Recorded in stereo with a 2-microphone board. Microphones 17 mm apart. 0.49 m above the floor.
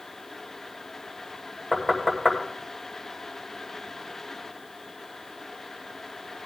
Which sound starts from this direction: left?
Knocking, at 1.7 s.